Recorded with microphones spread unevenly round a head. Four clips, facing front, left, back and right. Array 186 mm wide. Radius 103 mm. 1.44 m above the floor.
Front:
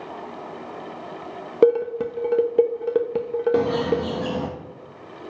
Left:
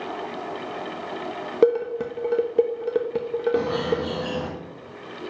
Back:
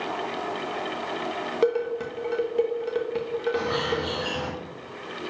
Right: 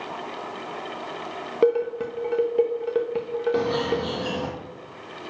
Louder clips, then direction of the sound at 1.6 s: Left 1 dB, front 7 dB; 25° left.